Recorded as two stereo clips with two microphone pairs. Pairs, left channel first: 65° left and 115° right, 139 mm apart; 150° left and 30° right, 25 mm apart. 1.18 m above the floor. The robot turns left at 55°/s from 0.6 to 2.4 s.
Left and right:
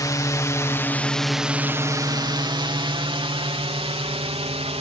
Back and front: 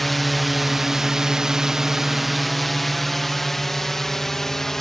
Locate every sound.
0.0 s a drone: 70° left; by 4.8 s 140° right